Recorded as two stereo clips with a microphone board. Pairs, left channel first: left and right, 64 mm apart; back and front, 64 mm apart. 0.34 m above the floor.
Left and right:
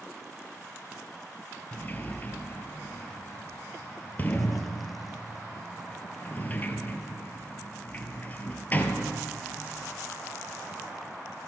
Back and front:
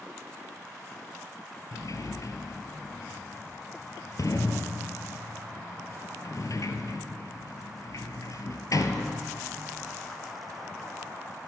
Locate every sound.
1.7 s a sliding door: 150° left, 1.2 m